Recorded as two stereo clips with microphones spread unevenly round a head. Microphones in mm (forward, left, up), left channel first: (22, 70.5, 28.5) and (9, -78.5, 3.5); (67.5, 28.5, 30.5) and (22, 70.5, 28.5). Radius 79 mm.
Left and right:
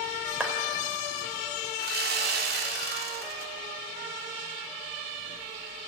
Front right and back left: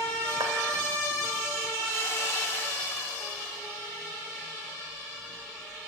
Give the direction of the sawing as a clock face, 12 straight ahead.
4 o'clock.